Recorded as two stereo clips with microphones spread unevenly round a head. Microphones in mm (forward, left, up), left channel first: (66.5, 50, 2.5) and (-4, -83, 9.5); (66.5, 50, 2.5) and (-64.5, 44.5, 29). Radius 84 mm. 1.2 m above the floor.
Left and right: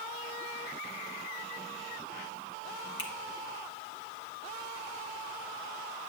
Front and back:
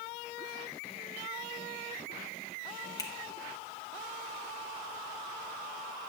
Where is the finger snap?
70° left, 1.4 m.